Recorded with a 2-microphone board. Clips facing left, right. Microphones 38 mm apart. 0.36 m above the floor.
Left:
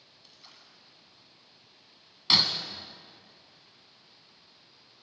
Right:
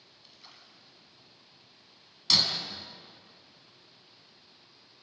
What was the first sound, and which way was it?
A splash, 5° right (ahead or behind).